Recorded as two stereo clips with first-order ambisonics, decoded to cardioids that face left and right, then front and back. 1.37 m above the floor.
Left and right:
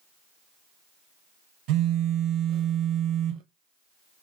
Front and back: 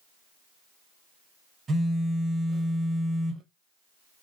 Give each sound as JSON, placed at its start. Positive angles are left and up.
{"t": 1.7, "sound": "a phone buzzing", "azimuth_deg": -110, "distance_m": 0.6}